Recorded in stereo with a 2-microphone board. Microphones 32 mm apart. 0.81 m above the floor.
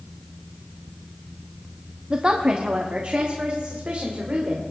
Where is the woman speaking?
35° right (ahead or behind), 0.9 m; by 4.6 s 45° right (ahead or behind), 2.5 m.